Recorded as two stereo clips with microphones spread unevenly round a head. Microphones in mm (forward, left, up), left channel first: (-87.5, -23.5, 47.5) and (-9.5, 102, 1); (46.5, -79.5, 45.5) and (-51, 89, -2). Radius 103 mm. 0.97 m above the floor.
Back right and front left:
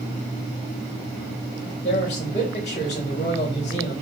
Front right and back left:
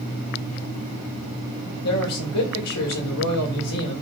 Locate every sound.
1.8 s a man speaking: 60° right, 4 m